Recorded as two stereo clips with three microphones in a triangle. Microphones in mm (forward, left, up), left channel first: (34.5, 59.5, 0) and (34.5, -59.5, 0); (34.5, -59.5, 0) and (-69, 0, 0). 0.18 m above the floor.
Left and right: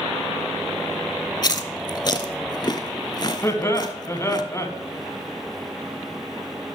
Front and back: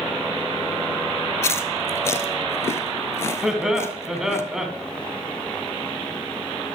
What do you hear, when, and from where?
1.4 s chewing: 35° left, 0.6 m
3.4 s laughter: 70° left, 1.1 m